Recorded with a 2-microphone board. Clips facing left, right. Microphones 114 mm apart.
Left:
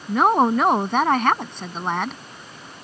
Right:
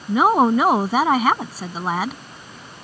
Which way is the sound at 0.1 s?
5° right (ahead or behind).